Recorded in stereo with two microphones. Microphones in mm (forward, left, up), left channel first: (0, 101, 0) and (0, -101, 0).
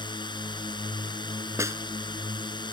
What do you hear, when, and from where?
0.0 s a drone: 20° left (ahead or behind)
1.6 s a snare drum: 15° right (ahead or behind)